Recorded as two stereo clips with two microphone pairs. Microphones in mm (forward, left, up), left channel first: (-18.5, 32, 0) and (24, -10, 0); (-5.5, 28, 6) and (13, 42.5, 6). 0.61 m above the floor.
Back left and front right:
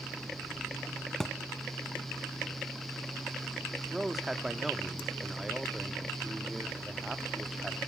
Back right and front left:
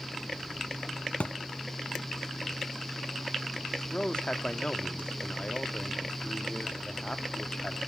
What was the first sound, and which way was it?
A thud, 145° right.